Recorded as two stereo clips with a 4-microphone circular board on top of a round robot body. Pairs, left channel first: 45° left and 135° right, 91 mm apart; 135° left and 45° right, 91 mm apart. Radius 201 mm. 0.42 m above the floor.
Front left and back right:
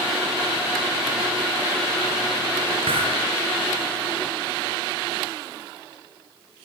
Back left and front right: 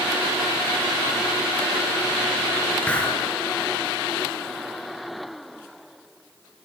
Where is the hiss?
150° right, 5.5 m.